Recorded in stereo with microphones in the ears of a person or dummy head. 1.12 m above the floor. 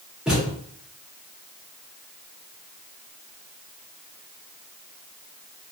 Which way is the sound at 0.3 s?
5° right (ahead or behind).